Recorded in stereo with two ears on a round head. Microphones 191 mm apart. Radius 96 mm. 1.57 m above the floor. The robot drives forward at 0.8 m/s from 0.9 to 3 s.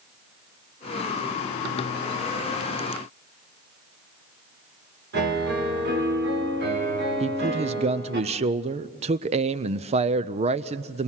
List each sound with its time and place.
5.1 s a piano: 50° right (ahead or behind), 5.5 m
7.2 s a man speaking: 30° right (ahead or behind), 0.6 m